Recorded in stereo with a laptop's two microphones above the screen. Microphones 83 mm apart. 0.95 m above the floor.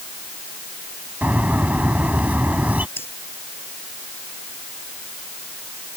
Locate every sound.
1.2 s a bird: 20° right (ahead or behind)
3.0 s breathing: 30° left (ahead or behind)